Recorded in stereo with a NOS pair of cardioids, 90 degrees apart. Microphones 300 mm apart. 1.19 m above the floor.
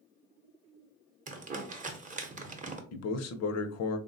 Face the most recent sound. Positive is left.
turn(degrees=60)